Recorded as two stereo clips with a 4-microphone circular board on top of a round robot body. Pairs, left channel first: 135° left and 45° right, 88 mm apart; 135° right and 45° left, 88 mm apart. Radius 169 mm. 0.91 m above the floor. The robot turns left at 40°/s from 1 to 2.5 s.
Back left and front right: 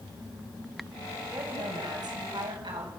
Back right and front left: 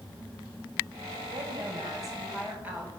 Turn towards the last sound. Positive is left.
turn(degrees=-25)